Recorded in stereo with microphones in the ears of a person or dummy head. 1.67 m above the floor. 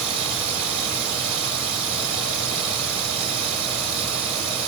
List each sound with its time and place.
0.0 s running water: 45° right (ahead or behind), 2 m